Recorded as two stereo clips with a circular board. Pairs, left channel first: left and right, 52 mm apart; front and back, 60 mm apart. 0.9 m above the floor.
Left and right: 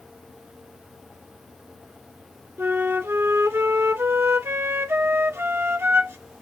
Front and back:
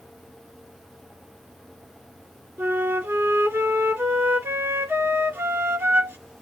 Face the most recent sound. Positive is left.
turn(degrees=-125)